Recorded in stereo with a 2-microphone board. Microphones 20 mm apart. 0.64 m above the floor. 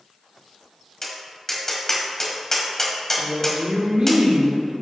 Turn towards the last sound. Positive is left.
turn(degrees=-50)  # may be behind; listen again after turning